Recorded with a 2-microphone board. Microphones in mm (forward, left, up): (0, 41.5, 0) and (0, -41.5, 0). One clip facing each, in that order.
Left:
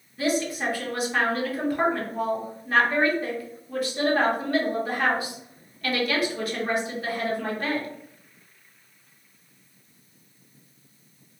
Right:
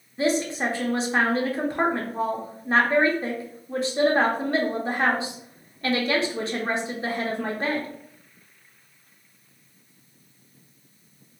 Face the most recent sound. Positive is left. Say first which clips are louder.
# right 2 dB
turn(degrees=-25)  # may be behind; listen again after turning